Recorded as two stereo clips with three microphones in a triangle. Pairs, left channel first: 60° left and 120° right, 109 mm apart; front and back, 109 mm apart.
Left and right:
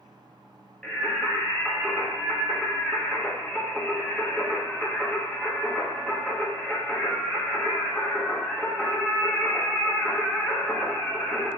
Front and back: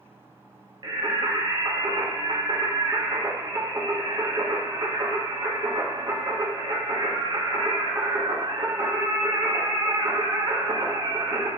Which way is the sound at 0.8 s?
140° left.